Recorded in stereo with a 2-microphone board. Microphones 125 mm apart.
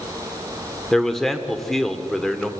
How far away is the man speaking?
About 1.5 m.